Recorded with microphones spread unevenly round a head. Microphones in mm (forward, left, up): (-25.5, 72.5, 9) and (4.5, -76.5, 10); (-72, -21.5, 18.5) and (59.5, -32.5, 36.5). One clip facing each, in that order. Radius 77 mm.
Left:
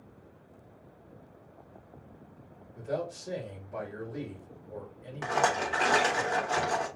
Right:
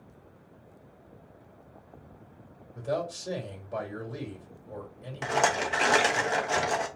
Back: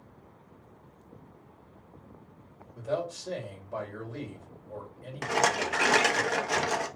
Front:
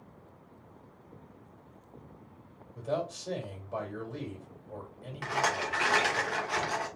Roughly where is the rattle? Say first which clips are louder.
Right 1 dB, back 4 dB; behind right.